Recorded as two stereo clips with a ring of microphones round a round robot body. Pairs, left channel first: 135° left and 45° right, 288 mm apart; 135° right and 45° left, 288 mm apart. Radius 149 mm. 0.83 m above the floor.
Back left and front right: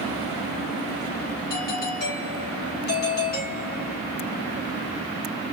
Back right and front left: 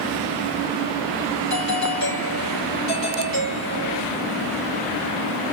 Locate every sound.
1.5 s a doorbell: 165° right, 8.5 m